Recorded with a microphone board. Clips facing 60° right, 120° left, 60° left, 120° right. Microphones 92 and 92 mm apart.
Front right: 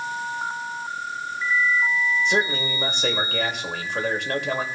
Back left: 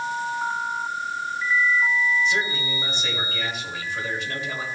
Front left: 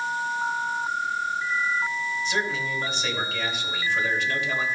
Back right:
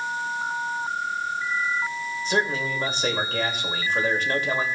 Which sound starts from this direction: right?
A man speaking, at 2.2 s.